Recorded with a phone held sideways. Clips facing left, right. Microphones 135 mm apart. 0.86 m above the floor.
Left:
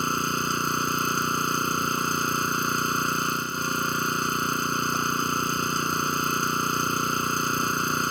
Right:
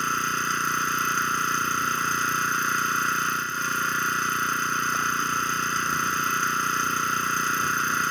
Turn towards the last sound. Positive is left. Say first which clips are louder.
# left 2 dB
turn(degrees=25)  # may be behind; listen again after turning